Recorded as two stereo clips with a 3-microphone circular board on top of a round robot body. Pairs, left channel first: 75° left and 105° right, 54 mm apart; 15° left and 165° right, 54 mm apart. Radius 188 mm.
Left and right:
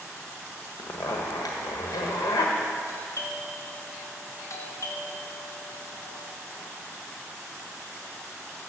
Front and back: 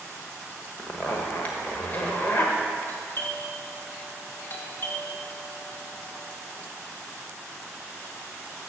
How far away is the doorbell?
About 2 m.